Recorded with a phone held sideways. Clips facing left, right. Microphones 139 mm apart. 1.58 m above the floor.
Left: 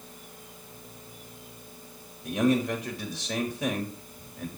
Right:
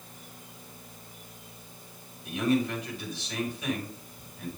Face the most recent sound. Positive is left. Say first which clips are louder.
# left 2 dB
turn(degrees=90)